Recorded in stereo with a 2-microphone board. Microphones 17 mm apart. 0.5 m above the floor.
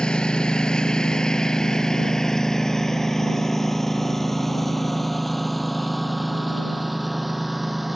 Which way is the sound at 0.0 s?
60° left (ahead or behind).